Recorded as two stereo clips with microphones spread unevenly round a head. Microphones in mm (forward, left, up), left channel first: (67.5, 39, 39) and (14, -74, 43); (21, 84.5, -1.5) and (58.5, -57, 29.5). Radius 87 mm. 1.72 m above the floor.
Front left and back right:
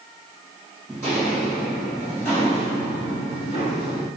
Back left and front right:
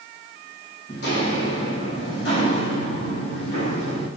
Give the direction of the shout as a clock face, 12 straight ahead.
No shout in this recording.